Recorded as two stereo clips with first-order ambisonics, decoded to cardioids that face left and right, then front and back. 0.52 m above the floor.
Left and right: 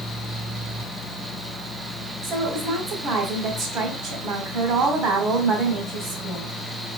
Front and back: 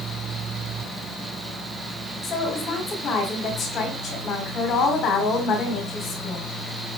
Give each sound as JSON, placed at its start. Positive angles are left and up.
{"t": 2.2, "sound": "a woman speaking", "azimuth_deg": -50, "distance_m": 1.5}